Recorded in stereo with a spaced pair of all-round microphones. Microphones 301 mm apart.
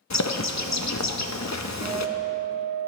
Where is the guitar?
15° right (ahead or behind), 2 m.